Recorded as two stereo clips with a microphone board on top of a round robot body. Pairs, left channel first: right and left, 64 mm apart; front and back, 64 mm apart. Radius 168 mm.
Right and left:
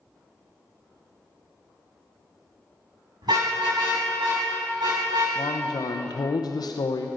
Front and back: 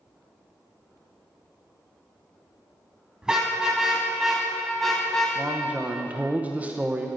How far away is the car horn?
About 5 m.